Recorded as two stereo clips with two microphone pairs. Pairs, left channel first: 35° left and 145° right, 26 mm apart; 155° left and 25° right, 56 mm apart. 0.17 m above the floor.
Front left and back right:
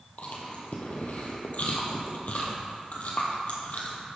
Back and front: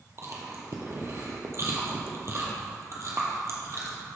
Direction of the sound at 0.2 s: 10° left.